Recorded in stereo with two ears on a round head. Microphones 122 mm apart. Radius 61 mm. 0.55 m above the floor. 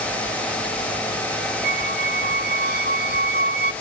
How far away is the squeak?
About 1.4 m.